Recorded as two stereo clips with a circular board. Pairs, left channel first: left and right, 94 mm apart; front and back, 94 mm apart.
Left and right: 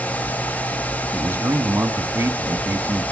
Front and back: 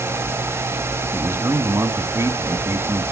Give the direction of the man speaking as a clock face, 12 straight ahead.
5 o'clock.